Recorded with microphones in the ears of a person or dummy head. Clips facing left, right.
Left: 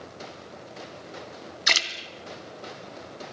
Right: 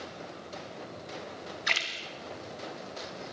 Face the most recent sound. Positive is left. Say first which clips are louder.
# left 8 dB
turn(degrees=60)  # may be behind; listen again after turning